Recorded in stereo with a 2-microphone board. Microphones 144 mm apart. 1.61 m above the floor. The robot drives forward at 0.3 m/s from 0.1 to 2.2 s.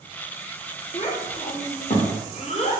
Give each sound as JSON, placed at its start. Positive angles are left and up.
{"t": 0.9, "sound": "a child speaking", "side_deg": 50, "distance_m": 0.8}